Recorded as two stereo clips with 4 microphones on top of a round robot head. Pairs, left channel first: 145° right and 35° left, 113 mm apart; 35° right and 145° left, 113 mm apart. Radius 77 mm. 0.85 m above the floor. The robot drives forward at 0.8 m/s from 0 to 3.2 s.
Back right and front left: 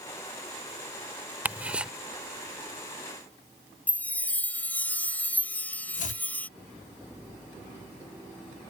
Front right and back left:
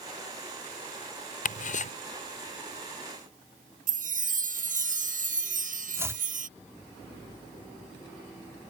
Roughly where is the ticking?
Ahead right.